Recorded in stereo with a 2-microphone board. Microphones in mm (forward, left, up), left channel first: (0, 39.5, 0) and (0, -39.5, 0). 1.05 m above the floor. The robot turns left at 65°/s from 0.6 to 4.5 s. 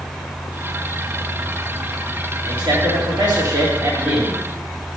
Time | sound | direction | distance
2.5 | a man speaking | 55° right | 2 m